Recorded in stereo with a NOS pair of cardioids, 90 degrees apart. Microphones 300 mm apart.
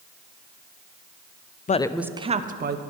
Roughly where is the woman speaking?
Ahead left.